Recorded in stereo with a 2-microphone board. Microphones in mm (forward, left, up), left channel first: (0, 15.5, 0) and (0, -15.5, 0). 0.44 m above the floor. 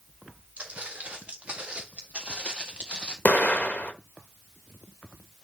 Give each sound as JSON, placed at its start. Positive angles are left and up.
{"t": 0.6, "sound": "footsteps", "side_deg": -45, "distance_m": 4.0}
{"t": 3.2, "sound": "an explosion", "side_deg": 55, "distance_m": 0.9}